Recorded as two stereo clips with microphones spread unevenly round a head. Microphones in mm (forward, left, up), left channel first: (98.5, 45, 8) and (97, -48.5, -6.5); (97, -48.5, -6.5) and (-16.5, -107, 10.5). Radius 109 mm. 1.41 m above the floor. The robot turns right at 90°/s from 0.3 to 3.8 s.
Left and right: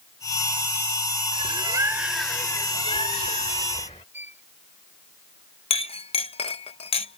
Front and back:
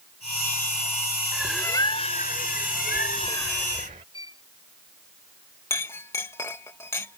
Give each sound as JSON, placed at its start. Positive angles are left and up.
{"t": 1.3, "sound": "a bird", "azimuth_deg": -75}
{"t": 4.1, "sound": "a violin", "azimuth_deg": -20}
{"t": 5.7, "sound": "a clink", "azimuth_deg": 105}